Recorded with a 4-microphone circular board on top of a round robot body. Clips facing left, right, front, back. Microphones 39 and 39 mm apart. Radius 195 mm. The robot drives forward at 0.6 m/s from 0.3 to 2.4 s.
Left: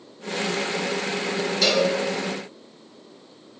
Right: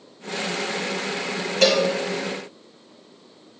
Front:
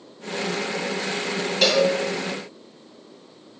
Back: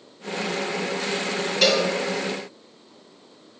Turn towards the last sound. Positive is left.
turn(degrees=-95)